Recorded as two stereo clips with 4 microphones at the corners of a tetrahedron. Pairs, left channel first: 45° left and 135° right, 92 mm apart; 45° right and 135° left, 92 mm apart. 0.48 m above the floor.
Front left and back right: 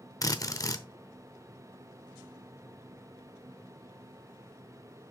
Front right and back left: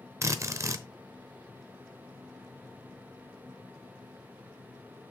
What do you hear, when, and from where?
0.2 s a drill: 85° left, 0.8 m